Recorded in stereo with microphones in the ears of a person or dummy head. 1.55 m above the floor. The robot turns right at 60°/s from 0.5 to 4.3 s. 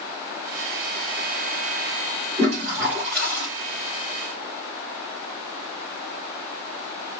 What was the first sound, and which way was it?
A toilet flushing, 40° right.